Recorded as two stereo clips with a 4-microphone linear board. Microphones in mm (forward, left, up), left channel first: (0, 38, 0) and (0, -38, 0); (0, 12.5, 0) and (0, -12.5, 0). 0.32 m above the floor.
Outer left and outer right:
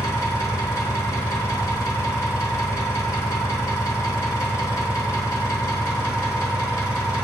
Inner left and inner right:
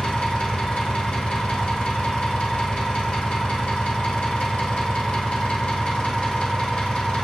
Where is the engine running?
35° left (ahead or behind), 1.1 m.